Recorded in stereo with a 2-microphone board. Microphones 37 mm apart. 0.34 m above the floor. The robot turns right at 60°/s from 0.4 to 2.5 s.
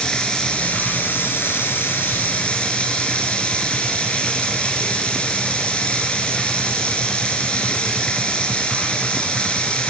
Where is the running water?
20° left, 4 m; by 9.9 s 150° left, 4 m.